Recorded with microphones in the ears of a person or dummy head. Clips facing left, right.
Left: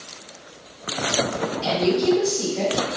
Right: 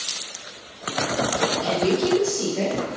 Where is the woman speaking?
10° right (ahead or behind), 0.9 m.